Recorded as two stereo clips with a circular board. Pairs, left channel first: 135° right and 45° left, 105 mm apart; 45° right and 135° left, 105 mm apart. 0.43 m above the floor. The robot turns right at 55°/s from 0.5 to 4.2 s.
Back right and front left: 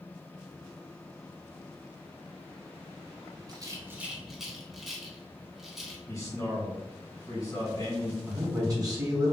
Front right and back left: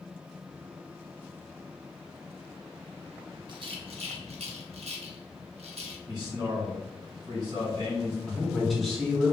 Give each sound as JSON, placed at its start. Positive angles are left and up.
{"t": 3.5, "sound": "a rattle", "azimuth_deg": 95, "distance_m": 0.6}
{"t": 6.1, "sound": "a man speaking", "azimuth_deg": 175, "distance_m": 1.7}
{"t": 8.3, "sound": "a man speaking", "azimuth_deg": 40, "distance_m": 1.0}